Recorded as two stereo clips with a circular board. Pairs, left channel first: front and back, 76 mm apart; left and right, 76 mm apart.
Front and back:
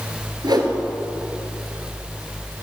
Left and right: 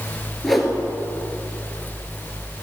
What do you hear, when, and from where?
0.4 s a whoosh: straight behind, 2.5 m